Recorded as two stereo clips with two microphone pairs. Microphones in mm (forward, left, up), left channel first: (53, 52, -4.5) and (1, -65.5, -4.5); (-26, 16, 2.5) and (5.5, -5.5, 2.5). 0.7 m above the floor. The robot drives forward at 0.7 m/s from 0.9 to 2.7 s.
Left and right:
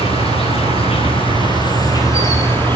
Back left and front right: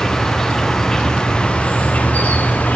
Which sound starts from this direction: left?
An insect, at 0.0 s.